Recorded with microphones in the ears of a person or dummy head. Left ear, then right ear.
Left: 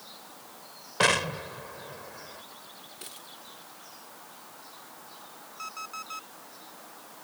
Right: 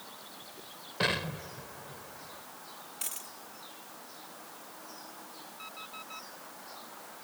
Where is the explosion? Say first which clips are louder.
Left 7 dB; 35° left (ahead or behind).